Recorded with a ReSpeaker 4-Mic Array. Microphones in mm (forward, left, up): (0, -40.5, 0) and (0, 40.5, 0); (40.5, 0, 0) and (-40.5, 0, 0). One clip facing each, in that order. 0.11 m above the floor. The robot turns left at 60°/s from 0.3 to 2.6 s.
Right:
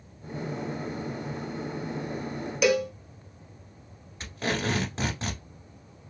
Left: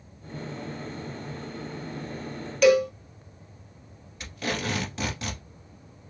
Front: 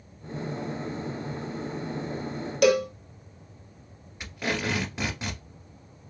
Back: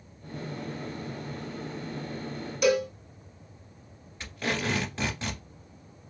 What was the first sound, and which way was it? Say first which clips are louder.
A cowbell: left 5 dB, front 3 dB; 10° right.